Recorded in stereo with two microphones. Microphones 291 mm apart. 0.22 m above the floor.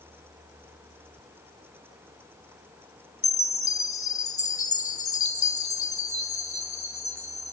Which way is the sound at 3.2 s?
70° left (ahead or behind).